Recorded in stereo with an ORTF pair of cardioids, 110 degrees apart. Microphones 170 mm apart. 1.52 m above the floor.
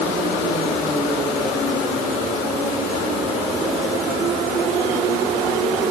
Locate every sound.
Only background noise.